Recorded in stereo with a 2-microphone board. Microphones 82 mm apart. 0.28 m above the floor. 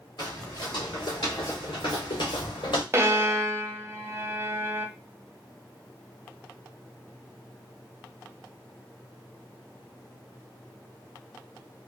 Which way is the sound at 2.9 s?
30° right (ahead or behind).